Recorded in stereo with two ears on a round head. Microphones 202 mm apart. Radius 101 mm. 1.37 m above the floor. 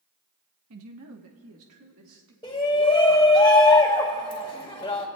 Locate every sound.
0.7 s a woman speaking: 70° right (ahead or behind), 1.2 m; by 2.3 s 65° right (ahead or behind), 2 m
2.4 s a shout: 20° left (ahead or behind), 2 m